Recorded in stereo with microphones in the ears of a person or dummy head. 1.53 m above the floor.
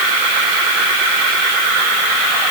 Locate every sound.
Only background noise.